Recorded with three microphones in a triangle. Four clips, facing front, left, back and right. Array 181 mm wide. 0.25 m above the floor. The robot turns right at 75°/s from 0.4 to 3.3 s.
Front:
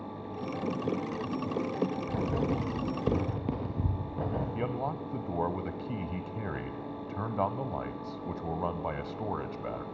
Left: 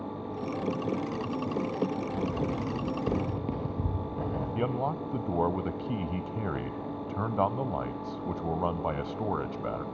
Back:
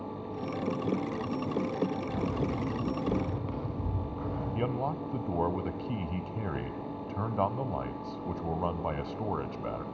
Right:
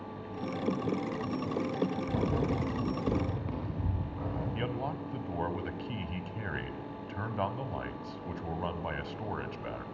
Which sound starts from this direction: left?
A man speaking, at 4.5 s.